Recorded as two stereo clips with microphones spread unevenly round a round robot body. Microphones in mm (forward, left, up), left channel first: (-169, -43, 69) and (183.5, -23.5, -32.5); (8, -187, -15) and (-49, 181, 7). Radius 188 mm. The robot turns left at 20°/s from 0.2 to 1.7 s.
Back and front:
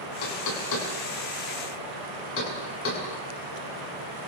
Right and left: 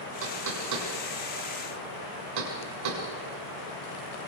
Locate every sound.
0.2 s knocking: 155° left, 6.5 m; by 3.0 s 125° left, 6.5 m